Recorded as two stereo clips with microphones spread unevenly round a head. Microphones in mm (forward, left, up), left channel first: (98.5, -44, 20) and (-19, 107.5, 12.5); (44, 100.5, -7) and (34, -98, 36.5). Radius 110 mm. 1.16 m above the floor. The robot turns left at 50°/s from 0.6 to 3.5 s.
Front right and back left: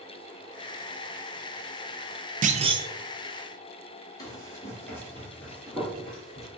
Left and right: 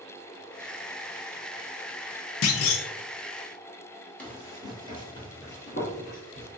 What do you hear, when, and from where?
2.4 s a clunk: 75° left, 0.5 m; by 2.9 s 55° left, 0.5 m
4.2 s running footsteps: 15° right, 1.2 m; by 6.5 s 35° left, 2 m